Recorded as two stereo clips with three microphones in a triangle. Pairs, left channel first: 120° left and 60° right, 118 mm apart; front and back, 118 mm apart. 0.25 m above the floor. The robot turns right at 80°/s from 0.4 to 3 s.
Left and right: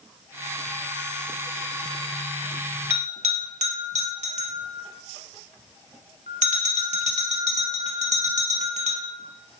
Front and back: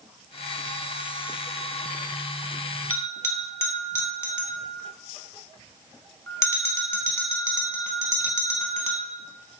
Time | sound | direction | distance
2.9 | a bell | 75° right | 0.6 m